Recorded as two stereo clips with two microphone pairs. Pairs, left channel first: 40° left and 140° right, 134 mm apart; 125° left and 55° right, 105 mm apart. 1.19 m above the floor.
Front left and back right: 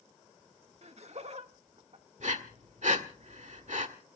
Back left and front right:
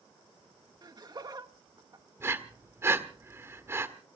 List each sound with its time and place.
0.8 s laughter: 105° right, 1.6 m
2.2 s breathing: 120° right, 1.5 m